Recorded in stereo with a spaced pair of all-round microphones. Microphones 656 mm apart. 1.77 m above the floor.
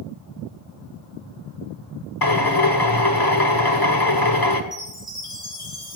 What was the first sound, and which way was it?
A drill, 30° left (ahead or behind).